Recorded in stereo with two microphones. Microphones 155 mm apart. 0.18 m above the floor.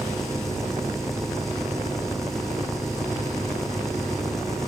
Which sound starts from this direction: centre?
An engine running, at 0.0 s.